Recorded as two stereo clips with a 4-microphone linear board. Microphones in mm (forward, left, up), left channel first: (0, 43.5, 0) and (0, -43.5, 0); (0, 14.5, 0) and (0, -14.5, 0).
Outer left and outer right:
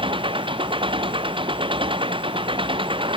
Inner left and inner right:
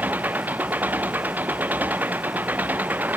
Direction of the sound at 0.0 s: 75° right (ahead or behind).